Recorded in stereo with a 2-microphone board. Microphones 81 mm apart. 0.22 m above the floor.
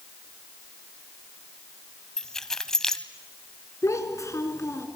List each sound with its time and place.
2.2 s keys jangling: 5° left (ahead or behind), 0.7 m
3.8 s a child speaking: 40° left (ahead or behind), 2 m